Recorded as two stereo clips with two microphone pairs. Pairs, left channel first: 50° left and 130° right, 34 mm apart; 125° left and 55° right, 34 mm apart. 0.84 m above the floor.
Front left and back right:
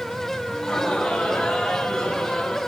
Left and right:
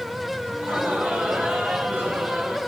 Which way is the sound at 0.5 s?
25° right.